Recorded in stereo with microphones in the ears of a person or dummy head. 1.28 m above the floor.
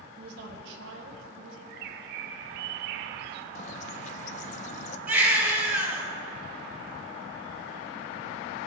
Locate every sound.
0.2 s a woman speaking: 55° right (ahead or behind), 1.3 m; by 1.6 s 85° right, 1.4 m
1.7 s a bird: 60° right (ahead or behind), 0.6 m
3.5 s a bird: 50° left (ahead or behind), 0.5 m
5.1 s a baby crying: 5° right (ahead or behind), 3 m